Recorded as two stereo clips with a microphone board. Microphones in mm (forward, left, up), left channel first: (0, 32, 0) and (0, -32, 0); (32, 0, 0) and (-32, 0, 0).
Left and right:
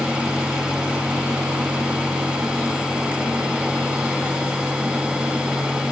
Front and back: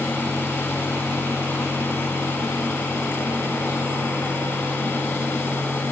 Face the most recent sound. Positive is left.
No sound to turn to.